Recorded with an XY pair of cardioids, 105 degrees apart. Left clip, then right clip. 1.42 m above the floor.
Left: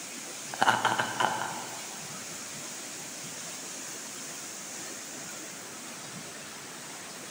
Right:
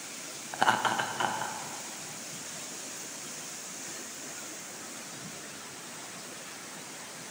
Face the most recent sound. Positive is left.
turn(degrees=20)